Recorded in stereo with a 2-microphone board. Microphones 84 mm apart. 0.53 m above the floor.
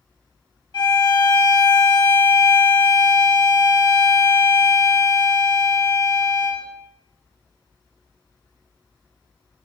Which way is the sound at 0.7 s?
65° left (ahead or behind).